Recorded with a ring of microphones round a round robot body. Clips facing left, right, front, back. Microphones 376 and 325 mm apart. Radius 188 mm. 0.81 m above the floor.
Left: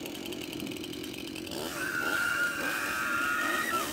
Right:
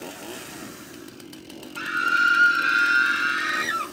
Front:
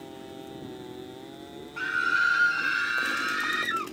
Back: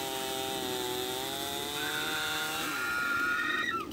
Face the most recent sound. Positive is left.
turn(degrees=-70)